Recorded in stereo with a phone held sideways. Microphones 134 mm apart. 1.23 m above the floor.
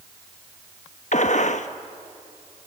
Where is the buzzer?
I don't hear a buzzer.